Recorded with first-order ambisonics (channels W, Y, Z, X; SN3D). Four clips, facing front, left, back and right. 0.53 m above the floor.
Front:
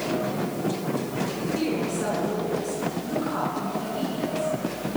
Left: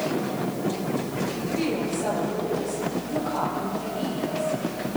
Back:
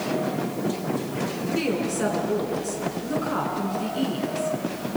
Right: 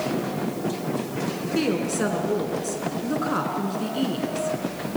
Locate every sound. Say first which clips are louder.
1.6 s a woman speaking: right 4 dB, back 2 dB; 105° right, 7 m